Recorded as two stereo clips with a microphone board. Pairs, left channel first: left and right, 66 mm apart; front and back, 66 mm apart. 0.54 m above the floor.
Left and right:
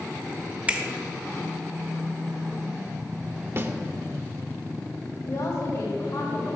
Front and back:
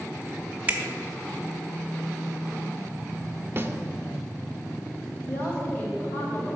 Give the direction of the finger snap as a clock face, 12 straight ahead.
5 o'clock.